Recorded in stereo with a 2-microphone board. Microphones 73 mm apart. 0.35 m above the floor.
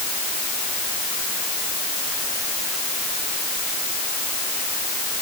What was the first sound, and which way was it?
Only background noise.